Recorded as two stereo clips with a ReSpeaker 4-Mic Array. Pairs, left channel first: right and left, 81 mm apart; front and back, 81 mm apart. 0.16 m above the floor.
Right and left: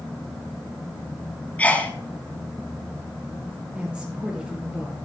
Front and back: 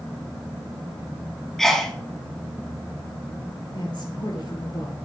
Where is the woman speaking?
15° left, 2.5 m.